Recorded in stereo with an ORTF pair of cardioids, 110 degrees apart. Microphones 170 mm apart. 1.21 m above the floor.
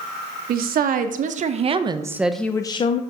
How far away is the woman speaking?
About 1.1 m.